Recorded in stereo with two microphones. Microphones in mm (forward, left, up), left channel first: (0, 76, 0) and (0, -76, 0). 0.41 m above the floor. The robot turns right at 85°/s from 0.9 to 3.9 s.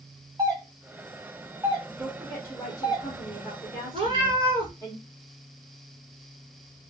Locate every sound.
0.4 s a doorbell: 25° right (ahead or behind), 1.9 m; by 3.0 s 25° left (ahead or behind), 1.9 m
2.0 s a woman speaking: 10° right, 1.1 m; by 4.9 s 150° left, 1.1 m
3.9 s a cat meowing: 35° right (ahead or behind), 1.4 m